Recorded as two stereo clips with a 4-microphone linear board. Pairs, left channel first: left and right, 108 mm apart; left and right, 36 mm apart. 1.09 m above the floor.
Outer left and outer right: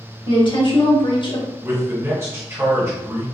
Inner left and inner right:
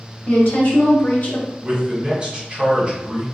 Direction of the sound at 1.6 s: 25° right (ahead or behind).